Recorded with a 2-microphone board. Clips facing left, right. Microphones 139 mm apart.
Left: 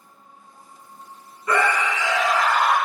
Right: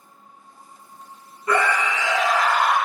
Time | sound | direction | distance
1.5 | a scream | 25° right (ahead or behind) | 1.1 m